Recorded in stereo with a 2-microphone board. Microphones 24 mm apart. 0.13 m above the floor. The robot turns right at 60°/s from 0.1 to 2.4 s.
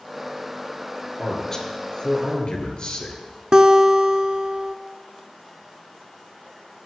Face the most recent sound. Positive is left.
turn(degrees=-45)  # may be behind; listen again after turning